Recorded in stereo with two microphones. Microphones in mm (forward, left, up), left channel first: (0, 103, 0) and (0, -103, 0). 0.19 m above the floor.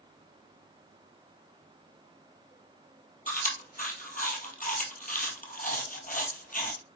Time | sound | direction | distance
3.3 | chewing | 45° left (ahead or behind) | 1.7 m